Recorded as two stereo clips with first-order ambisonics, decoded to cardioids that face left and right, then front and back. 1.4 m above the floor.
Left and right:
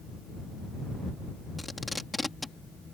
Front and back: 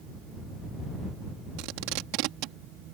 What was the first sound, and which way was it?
Tape being pulled, 175° left.